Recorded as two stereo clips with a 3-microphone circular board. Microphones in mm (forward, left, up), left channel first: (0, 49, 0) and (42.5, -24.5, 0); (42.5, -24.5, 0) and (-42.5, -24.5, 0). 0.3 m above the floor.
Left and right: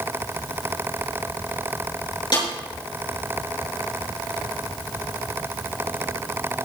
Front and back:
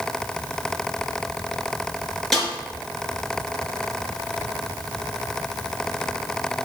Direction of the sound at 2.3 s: 85° left.